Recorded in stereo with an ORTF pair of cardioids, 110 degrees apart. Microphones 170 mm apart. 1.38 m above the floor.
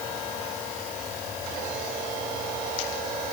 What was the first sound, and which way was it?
Only background noise.